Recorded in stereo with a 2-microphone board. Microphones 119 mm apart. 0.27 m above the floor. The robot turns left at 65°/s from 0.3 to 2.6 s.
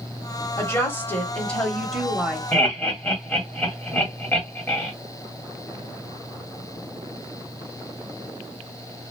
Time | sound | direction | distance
0.6 | a woman speaking | 20° left (ahead or behind) | 0.9 m
2.5 | laughter | 10° left (ahead or behind) | 1.6 m